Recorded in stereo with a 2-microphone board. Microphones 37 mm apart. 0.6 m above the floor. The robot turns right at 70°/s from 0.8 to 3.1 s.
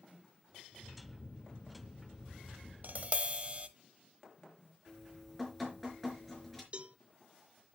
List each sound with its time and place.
2.8 s tapping: 55° right (ahead or behind), 1.0 m; by 3.7 s 35° right (ahead or behind), 1.0 m
4.9 s dripping: 5° left (ahead or behind), 4 m
6.7 s a cowbell: 35° right (ahead or behind), 0.8 m